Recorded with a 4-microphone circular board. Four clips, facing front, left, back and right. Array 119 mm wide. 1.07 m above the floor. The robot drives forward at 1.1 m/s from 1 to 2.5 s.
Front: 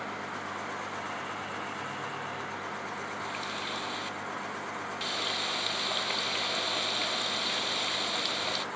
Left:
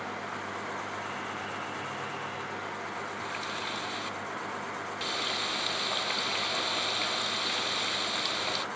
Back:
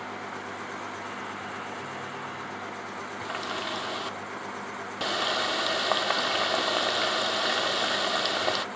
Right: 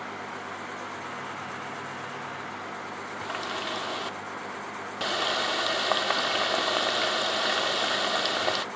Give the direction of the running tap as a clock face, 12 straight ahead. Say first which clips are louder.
Right 3 dB, back 3 dB; 5 o'clock.